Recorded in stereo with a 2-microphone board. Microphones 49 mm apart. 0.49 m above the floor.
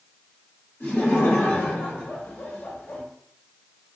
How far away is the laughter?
About 1.4 m.